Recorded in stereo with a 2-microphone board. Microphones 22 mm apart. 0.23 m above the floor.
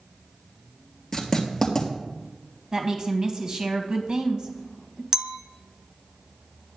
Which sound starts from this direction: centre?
Writing, at 1.1 s.